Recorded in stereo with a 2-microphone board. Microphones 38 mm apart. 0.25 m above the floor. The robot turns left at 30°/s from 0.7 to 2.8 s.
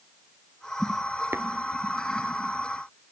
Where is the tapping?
85° right, 1.1 m; by 1.4 s 80° right, 1.1 m.